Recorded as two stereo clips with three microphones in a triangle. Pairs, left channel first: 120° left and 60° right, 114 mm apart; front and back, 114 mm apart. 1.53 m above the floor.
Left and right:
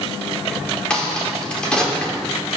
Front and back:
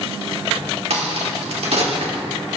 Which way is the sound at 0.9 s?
160° right.